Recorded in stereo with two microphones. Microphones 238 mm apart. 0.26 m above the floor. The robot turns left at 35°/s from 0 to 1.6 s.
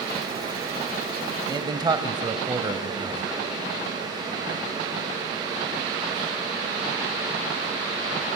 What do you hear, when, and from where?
1.5 s a man speaking: 20° right (ahead or behind), 1.0 m